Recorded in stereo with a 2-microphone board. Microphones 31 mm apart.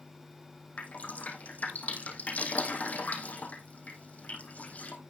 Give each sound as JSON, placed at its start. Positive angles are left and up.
{"t": 0.8, "sound": "dripping", "side_deg": 55, "distance_m": 3.5}